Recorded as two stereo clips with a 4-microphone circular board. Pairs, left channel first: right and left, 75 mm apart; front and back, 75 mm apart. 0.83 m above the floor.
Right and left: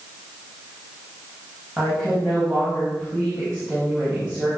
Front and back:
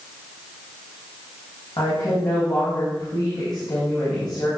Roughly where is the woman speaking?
Ahead.